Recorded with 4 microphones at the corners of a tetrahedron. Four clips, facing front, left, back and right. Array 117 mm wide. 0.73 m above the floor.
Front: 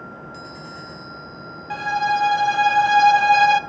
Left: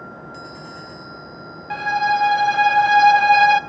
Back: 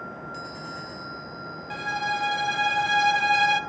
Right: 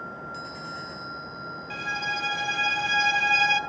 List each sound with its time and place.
1.7 s a violin: 60° left, 0.6 m